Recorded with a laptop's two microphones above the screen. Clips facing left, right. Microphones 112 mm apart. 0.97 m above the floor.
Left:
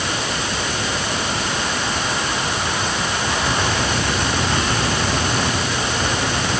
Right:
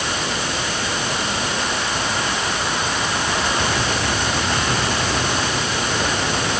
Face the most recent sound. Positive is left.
No sound to turn to.